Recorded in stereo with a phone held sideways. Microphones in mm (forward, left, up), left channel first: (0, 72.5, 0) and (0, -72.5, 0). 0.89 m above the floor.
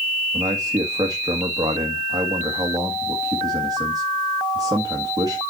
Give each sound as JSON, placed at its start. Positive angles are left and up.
{"t": 0.3, "sound": "a man speaking", "side_deg": -30, "distance_m": 1.7}